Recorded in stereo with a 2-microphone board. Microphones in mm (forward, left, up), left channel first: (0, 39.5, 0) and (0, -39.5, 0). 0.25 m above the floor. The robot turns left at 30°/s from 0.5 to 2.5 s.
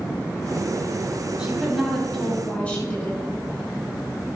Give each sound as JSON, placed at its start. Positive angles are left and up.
{"t": 1.4, "sound": "a woman speaking", "azimuth_deg": -170, "distance_m": 3.0}